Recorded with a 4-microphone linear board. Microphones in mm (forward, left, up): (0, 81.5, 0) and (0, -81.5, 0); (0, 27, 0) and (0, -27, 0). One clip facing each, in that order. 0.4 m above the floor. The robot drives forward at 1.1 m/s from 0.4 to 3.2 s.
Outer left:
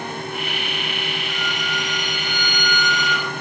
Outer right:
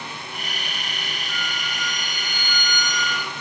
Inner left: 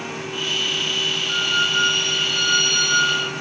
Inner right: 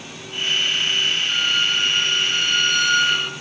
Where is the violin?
10° right (ahead or behind), 4 m; by 3.3 s 15° right (ahead or behind), 1.8 m.